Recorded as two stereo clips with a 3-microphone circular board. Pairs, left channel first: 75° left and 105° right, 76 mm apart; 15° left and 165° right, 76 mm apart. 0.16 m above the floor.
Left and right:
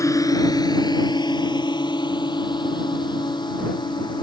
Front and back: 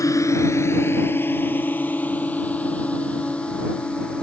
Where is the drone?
45° left; by 4.2 s 90° left.